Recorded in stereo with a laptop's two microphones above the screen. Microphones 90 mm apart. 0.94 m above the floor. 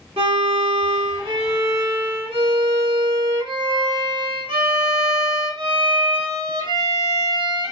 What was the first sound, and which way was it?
A violin, 90° right.